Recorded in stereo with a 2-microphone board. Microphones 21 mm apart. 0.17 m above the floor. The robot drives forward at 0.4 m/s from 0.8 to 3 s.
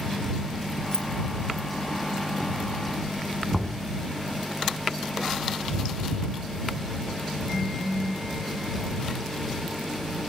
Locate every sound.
0.9 s keys jangling: 30° left (ahead or behind), 0.9 m
3.5 s knocking: 25° left (ahead or behind), 1.1 m